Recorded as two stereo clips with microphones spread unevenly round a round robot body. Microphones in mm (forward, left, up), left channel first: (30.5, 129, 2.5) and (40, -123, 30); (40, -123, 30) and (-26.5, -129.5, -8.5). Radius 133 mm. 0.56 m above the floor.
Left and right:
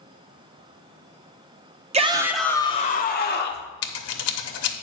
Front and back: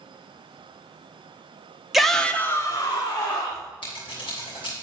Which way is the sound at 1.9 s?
145° right.